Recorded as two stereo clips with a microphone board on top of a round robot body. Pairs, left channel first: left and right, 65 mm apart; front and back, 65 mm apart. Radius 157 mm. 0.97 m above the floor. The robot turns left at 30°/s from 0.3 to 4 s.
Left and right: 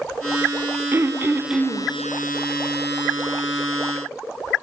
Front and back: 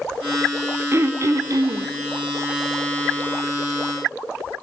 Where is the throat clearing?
135° right, 0.9 m; by 1.9 s 165° right, 0.9 m.